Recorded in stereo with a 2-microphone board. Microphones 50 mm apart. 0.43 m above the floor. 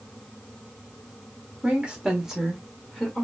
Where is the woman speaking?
25° right (ahead or behind), 1.2 m; by 3.2 s 10° left (ahead or behind), 1.3 m.